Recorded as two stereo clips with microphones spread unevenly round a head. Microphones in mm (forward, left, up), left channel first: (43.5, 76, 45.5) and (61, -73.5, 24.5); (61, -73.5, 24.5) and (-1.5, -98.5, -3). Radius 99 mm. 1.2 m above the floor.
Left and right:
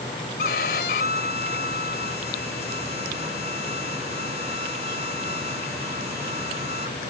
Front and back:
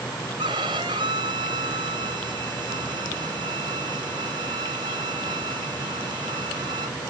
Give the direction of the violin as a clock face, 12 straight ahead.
7 o'clock.